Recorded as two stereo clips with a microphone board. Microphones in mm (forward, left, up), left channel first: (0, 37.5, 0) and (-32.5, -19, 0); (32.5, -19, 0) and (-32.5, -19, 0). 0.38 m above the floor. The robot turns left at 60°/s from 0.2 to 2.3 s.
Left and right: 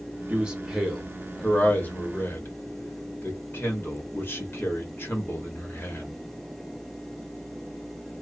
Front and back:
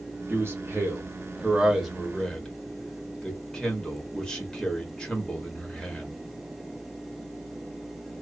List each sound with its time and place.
0.3 s a man speaking: 175° right, 1.0 m; by 6.2 s 65° left, 1.0 m